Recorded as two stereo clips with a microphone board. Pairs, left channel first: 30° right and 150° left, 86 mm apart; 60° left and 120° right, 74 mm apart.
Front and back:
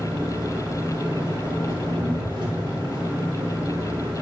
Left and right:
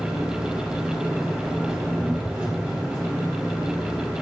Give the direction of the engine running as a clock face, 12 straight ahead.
7 o'clock.